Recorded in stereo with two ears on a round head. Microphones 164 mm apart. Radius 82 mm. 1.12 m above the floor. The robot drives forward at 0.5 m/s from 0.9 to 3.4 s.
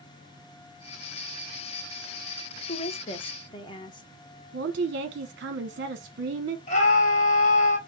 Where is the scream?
40° left (ahead or behind), 1.3 m.